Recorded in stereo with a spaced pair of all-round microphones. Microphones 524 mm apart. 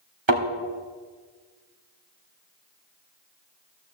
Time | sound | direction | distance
0.3 | a thud | 60° right (ahead or behind) | 2.0 m